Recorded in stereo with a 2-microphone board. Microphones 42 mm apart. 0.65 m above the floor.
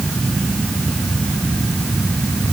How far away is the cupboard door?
No cupboard door in this recording.